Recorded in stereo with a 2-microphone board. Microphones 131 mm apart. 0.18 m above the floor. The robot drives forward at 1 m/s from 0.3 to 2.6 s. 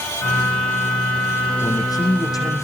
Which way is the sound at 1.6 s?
30° left (ahead or behind).